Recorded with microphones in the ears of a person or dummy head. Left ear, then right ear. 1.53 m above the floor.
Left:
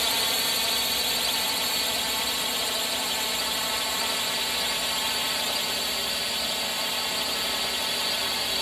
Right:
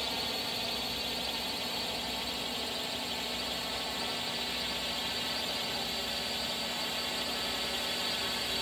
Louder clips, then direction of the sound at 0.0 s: Left 9 dB; 40° left (ahead or behind).